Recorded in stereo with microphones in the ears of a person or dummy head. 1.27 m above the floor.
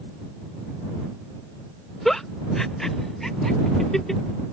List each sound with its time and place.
2.0 s a giggle: centre (ahead or behind)